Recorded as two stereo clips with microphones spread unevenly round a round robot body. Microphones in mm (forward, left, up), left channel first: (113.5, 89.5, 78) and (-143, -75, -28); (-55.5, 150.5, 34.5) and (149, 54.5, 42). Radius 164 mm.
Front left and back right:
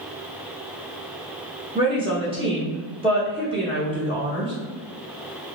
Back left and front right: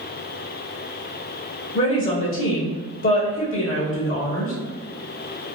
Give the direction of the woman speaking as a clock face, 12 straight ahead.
7 o'clock.